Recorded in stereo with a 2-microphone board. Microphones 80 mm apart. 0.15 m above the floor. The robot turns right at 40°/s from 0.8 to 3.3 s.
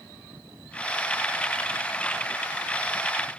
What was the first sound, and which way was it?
Only background noise.